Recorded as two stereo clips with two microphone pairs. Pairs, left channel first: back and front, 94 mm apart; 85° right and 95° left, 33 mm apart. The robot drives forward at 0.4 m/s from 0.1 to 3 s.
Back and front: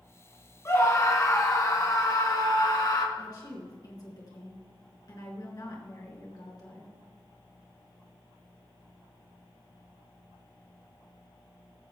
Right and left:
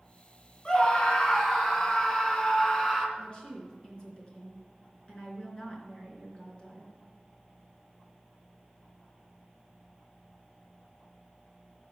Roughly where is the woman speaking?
Behind right.